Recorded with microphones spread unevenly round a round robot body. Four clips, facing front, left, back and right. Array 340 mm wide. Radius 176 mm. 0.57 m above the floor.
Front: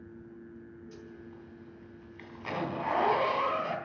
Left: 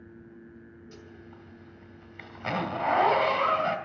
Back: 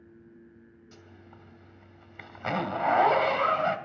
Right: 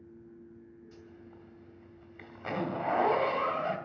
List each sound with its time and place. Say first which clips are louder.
0.9 s a zipper: left 3 dB, front 5 dB; 145° left, 3 m